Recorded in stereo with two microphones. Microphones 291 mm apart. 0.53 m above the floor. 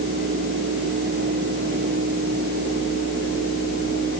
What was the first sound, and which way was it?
Only background noise.